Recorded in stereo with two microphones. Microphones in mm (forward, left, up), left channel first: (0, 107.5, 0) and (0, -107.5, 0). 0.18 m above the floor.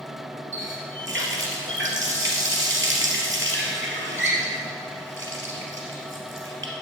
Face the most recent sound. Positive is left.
turn(degrees=-65)  # may be behind; listen again after turning